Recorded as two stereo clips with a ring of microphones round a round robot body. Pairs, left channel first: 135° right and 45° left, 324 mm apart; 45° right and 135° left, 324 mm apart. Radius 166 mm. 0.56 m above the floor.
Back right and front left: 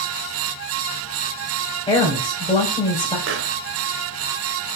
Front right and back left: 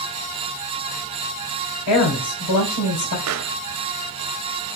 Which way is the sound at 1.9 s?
60° right.